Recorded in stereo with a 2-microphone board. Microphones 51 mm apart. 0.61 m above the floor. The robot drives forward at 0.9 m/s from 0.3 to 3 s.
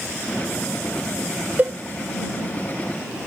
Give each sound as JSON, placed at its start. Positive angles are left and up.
{"t": 1.6, "sound": "a cowbell", "side_deg": -35, "distance_m": 0.5}